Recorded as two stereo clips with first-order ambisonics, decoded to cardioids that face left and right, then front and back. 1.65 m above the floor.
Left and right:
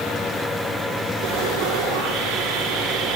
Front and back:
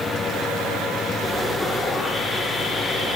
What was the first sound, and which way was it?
Sawing, 85° right.